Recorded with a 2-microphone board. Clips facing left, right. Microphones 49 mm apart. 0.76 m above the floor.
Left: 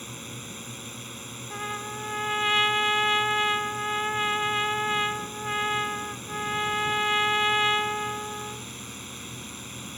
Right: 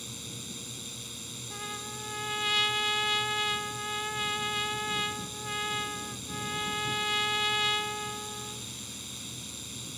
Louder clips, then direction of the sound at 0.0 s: Left 4 dB; 35° left (ahead or behind).